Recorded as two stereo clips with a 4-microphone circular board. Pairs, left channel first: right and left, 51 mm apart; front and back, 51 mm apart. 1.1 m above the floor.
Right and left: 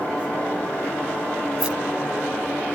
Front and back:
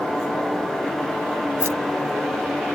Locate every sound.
1.6 s keys jangling: 155° left